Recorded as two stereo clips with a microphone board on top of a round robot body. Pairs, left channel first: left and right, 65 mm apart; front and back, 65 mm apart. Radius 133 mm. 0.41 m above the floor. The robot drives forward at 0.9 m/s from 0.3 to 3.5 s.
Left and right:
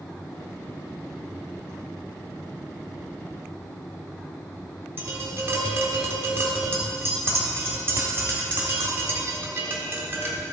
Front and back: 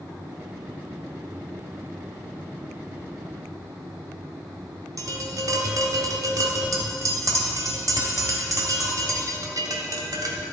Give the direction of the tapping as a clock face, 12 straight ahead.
5 o'clock.